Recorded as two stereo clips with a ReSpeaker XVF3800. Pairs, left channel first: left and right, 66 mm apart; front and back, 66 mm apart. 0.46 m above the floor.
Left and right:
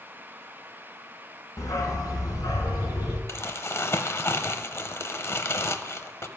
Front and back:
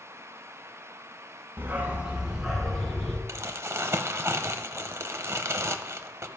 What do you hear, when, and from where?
1.6 s a dog barking: 120° left, 1.4 m; by 3.2 s 80° left, 2.5 m
3.3 s crumpling: 135° left, 0.6 m